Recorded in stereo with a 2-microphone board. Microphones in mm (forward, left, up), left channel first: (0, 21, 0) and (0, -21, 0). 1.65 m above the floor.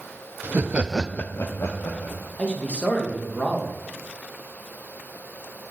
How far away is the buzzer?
I don't hear a buzzer.